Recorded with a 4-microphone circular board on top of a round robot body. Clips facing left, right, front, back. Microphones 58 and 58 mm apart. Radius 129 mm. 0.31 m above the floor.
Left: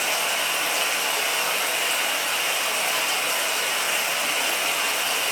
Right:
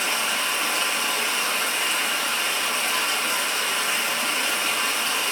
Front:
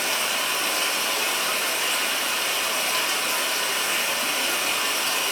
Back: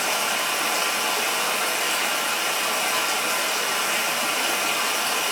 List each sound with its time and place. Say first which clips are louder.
0.0 s running water: even, back 2 dB; 170° left, 1.5 m